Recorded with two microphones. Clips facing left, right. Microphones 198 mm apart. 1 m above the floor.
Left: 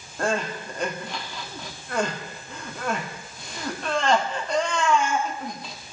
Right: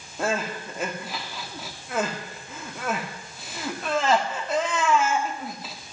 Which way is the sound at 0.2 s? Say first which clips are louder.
Left 1 dB; 5° right (ahead or behind).